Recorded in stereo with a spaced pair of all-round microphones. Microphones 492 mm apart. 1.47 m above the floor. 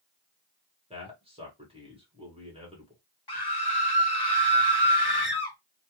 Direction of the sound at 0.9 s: 10° right (ahead or behind).